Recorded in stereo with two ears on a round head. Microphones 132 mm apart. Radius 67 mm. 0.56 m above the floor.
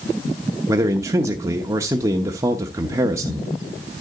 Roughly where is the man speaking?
Right.